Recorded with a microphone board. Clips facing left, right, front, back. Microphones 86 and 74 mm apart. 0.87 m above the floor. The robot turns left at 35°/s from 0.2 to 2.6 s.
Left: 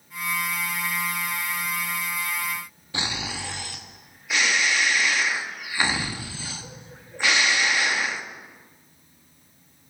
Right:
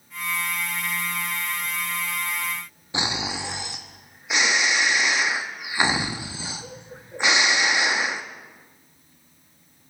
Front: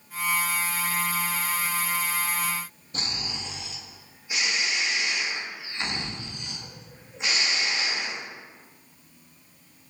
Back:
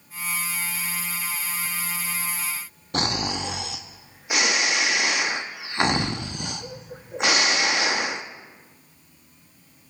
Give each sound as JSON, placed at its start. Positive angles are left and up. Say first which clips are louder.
{"t": 2.9, "sound": "snoring", "louder": "right 3 dB, back 10 dB", "azimuth_deg": -160, "distance_m": 0.8}